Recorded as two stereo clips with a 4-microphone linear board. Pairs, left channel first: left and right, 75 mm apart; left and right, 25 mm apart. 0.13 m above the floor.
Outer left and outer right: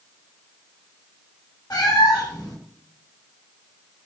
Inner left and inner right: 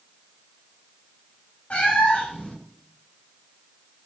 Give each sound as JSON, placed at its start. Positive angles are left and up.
{"t": 1.7, "sound": "a cat meowing", "side_deg": 55, "distance_m": 4.0}